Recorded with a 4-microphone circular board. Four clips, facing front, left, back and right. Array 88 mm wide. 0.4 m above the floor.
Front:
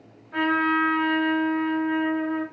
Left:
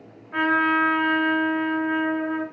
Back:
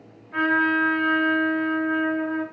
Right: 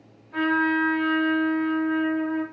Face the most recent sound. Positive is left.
turn(degrees=90)